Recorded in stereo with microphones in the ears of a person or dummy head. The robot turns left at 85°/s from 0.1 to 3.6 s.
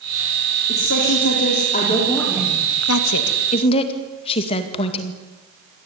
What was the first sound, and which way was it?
A woman speaking, 135° left.